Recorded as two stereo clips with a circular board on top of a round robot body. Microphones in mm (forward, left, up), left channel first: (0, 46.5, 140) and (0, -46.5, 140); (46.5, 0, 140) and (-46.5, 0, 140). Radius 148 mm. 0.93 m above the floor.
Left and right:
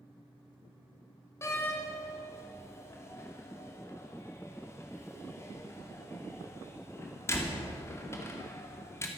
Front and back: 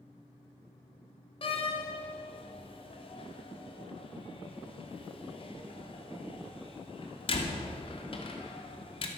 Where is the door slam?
25° left, 2 m.